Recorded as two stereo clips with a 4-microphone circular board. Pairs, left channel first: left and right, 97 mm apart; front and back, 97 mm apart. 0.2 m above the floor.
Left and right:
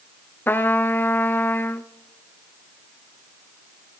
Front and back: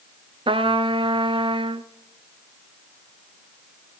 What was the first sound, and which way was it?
A trumpet, 160° left.